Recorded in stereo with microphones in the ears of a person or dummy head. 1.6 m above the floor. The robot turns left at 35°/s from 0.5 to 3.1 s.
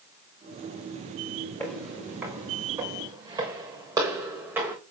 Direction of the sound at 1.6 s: 5° left (ahead or behind).